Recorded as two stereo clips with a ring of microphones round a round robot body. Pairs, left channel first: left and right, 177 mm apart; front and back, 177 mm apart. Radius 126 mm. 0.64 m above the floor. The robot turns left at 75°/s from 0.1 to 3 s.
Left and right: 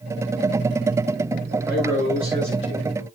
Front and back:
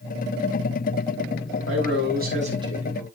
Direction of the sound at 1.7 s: 170° right.